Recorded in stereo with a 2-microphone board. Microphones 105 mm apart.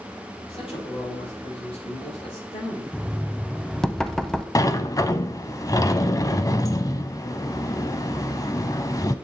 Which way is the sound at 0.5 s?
65° left (ahead or behind).